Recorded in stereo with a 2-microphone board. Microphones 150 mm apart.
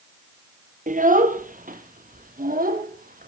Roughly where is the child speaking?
Right.